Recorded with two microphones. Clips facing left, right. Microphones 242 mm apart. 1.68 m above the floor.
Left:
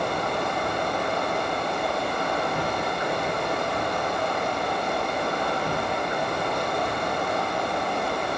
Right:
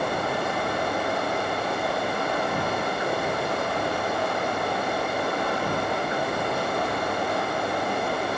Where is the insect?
20° right (ahead or behind), 4 m.